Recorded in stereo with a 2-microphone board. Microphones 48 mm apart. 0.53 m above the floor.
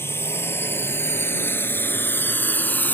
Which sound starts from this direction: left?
A drone, at 0.0 s.